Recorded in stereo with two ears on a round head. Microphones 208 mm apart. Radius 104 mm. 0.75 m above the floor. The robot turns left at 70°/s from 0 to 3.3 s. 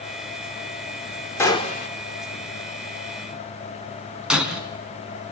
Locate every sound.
1.4 s a gunshot: 170° left, 2 m; by 1.9 s 135° left, 2 m
4.3 s breaking glass: 5° right (ahead or behind), 3.5 m